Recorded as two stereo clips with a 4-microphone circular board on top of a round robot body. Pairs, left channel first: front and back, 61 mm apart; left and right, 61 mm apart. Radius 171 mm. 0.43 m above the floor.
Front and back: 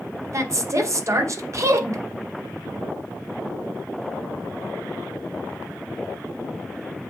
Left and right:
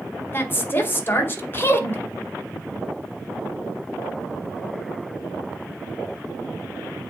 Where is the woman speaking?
145° left, 1.9 m.